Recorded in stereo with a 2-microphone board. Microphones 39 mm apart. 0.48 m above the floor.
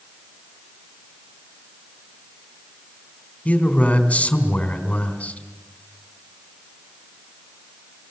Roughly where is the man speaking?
Left.